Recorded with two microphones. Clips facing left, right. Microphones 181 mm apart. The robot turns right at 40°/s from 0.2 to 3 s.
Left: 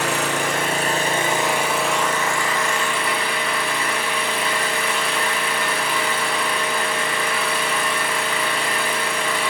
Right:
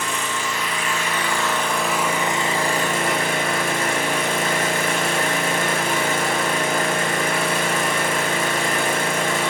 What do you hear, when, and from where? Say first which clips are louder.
0.0 s an engine running: left 5 dB; 115° left, 4 m; by 9.5 s 135° right, 4 m